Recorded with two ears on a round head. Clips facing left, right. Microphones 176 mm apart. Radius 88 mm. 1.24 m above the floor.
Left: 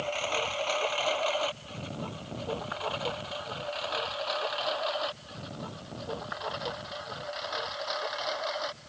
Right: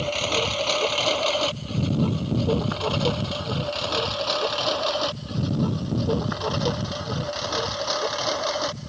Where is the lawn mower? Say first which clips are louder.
Right 6 dB; 50° right (ahead or behind); by 8.9 s 60° right (ahead or behind).